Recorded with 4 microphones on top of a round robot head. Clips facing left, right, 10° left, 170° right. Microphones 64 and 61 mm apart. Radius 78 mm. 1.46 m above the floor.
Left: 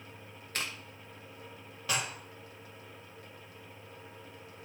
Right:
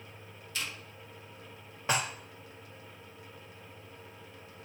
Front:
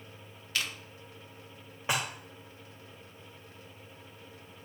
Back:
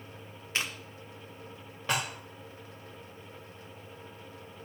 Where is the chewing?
130° left, 0.9 m.